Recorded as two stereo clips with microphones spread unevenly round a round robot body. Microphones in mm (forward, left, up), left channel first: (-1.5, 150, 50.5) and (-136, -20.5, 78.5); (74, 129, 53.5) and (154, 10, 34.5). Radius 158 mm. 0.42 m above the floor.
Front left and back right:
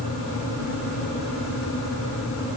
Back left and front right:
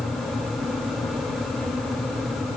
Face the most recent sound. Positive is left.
No sound to turn to.